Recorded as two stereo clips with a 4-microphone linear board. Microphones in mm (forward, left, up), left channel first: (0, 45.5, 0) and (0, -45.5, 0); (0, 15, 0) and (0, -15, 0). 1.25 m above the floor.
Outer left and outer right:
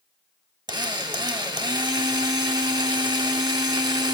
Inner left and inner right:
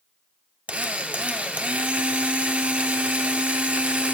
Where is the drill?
50° right (ahead or behind), 1.3 m.